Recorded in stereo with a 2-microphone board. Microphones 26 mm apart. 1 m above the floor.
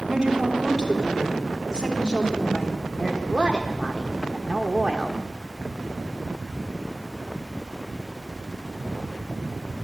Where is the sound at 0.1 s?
25° right (ahead or behind), 3.5 m.